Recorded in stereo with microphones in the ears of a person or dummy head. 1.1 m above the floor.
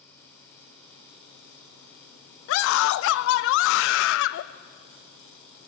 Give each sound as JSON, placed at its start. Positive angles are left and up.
{"t": 0.0, "sound": "a fan", "side_deg": 5, "distance_m": 1.5}
{"t": 2.5, "sound": "a scream", "side_deg": 60, "distance_m": 0.7}